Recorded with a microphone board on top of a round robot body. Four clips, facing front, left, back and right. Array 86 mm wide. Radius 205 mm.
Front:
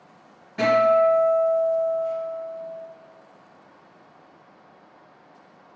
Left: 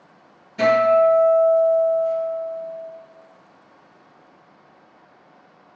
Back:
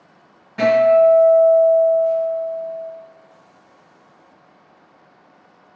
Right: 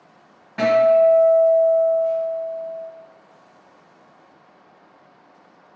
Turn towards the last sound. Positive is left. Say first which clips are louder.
# right 1 dB, back 5 dB
turn(degrees=-100)